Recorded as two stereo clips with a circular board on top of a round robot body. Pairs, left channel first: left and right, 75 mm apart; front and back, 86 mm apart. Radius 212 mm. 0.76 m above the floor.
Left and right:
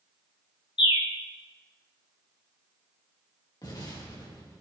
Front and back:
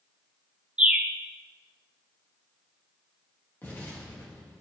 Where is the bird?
100° left, 0.6 m.